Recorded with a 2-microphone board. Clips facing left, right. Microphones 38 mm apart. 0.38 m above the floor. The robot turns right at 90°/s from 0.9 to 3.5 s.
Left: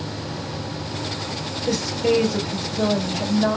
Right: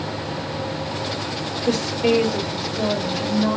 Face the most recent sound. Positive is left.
turn(degrees=65)